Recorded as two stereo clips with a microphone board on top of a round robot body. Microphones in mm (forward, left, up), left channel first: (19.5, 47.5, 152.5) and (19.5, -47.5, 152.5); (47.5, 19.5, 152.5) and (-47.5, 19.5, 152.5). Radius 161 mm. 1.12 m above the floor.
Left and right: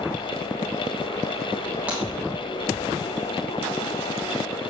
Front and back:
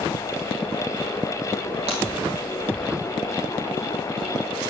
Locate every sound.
1.9 s breaking glass: 165° right, 3 m